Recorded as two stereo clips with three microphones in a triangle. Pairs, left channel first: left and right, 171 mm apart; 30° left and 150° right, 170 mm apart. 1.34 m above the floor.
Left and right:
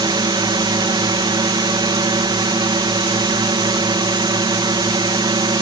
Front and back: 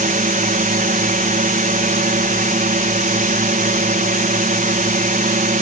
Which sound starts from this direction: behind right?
A drone, at 0.0 s.